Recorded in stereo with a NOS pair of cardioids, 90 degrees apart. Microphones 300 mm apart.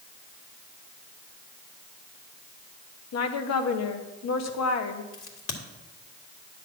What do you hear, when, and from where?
3.1 s a woman speaking: 60° left, 1.2 m
5.1 s a crack: 45° left, 2 m